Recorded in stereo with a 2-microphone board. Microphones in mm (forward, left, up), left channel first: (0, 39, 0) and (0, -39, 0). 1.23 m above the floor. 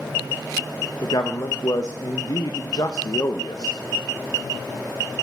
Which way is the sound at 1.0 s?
55° left (ahead or behind).